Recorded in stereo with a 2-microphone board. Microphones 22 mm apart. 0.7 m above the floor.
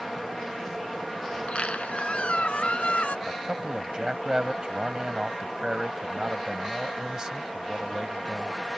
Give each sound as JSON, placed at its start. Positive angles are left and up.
{"t": 1.3, "sound": "a squeak", "side_deg": 70}
{"t": 3.3, "sound": "a man speaking", "side_deg": -30}